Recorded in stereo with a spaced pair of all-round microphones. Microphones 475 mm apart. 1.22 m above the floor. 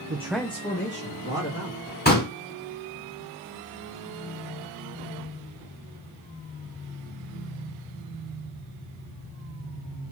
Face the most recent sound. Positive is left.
turn(degrees=20)  # may be behind; listen again after turning